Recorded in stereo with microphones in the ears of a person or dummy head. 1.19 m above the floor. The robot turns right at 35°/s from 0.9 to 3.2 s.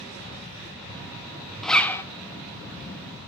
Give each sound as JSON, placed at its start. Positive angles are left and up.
{"t": 1.6, "sound": "a zipper", "side_deg": 5, "distance_m": 0.8}